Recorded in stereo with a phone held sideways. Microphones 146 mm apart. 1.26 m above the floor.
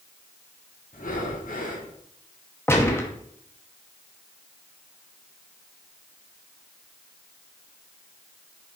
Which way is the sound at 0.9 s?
70° left (ahead or behind).